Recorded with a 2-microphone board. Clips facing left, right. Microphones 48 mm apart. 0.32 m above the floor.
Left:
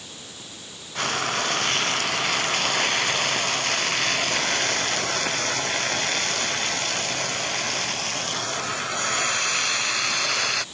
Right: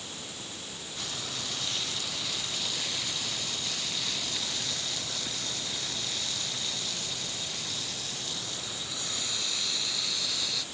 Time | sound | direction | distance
0.9 | frying | 60° left (ahead or behind) | ?